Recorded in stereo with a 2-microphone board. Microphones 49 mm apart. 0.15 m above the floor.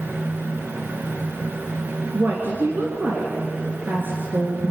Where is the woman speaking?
45° right (ahead or behind), 2.5 m.